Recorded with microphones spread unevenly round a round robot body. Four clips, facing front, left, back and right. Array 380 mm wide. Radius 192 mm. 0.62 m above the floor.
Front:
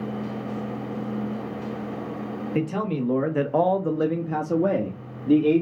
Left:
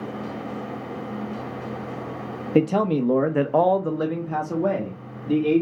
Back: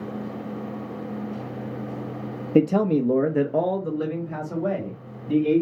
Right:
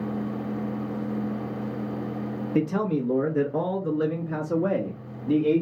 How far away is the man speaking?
About 0.8 m.